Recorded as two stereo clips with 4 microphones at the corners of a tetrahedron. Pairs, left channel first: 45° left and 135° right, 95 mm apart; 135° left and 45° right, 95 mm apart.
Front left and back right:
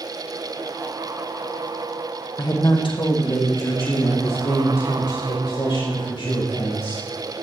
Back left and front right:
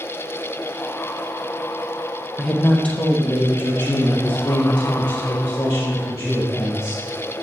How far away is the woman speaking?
About 1.0 m.